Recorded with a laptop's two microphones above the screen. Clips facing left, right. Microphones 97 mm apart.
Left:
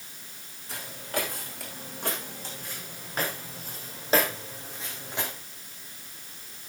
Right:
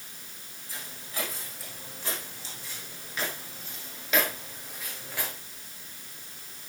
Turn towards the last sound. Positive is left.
turn(degrees=20)  # may be behind; listen again after turning